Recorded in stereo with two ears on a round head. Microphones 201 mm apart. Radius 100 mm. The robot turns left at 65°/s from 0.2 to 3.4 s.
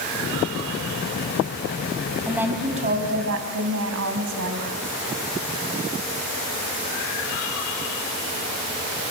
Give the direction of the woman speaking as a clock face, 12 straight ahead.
12 o'clock.